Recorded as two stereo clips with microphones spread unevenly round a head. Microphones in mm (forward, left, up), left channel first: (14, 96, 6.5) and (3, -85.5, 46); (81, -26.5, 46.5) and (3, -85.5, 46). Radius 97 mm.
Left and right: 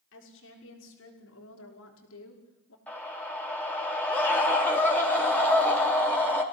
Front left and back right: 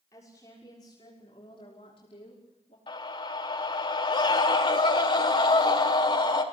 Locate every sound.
0.1 s a woman speaking: 110° left, 6.5 m; by 2.8 s 85° left, 5 m
2.9 s a scream: 5° left, 4 m